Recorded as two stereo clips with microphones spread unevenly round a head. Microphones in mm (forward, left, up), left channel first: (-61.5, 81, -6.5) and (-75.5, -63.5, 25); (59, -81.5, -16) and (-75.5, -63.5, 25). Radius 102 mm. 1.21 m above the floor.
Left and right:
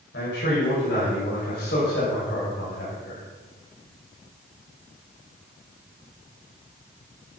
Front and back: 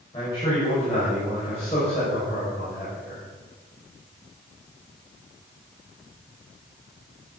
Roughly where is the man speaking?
Ahead left.